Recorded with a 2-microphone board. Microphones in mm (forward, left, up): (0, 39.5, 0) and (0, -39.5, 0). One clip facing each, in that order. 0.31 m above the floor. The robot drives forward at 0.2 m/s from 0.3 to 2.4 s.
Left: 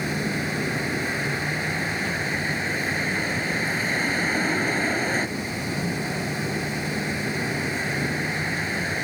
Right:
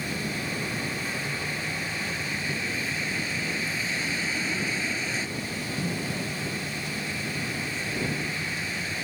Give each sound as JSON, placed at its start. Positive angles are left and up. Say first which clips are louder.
{"t": 0.0, "sound": "a vehicle", "louder": "left 5 dB", "side_deg": 55}